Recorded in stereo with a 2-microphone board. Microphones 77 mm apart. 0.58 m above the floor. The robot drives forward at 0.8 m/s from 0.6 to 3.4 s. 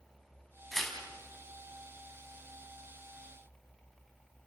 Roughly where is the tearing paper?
Centre.